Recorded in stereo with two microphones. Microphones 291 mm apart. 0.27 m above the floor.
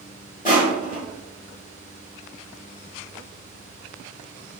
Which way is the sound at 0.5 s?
25° left (ahead or behind).